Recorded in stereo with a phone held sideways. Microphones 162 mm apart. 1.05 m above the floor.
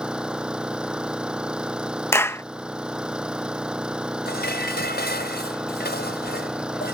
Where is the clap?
15° left (ahead or behind).